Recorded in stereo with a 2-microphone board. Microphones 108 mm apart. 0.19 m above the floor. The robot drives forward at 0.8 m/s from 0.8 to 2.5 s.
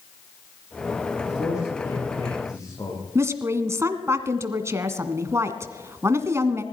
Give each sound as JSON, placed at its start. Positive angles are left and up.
{"t": 1.2, "sound": "a man speaking", "side_deg": 30, "distance_m": 7.5}
{"t": 3.1, "sound": "a woman speaking", "side_deg": -25, "distance_m": 1.7}